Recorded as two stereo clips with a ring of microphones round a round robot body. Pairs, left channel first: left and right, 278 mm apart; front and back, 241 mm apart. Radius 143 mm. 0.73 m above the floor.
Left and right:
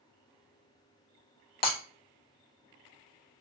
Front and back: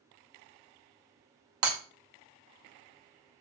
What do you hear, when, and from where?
1.6 s breaking glass: 150° left, 1.1 m